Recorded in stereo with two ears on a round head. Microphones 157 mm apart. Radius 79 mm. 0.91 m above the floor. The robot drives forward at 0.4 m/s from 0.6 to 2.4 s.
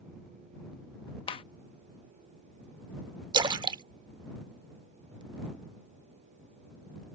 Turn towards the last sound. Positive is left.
turn(degrees=-20)  # may be behind; listen again after turning